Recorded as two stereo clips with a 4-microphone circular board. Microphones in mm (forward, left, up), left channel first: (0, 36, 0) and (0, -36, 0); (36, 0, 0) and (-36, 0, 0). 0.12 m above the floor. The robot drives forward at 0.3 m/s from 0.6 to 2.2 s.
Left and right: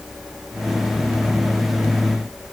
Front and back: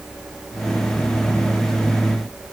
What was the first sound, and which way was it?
Only background noise.